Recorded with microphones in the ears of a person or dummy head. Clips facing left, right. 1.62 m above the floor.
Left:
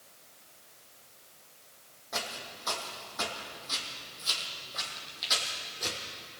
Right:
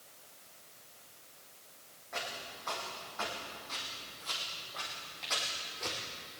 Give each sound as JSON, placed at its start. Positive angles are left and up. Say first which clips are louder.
{"t": 2.1, "sound": "footsteps", "louder": "left 3 dB", "side_deg": 60, "distance_m": 3.5}